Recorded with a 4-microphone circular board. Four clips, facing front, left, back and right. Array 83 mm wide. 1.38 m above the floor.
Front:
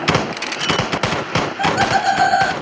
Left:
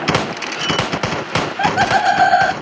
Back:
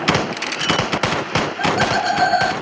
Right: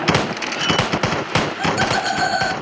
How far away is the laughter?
About 0.9 m.